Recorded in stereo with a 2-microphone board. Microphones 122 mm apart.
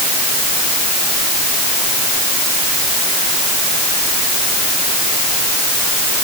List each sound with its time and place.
Only background noise.